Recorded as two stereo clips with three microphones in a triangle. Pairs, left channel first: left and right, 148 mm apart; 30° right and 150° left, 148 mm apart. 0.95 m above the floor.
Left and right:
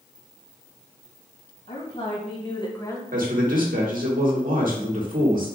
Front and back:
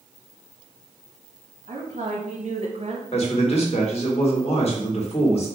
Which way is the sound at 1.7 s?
125° left.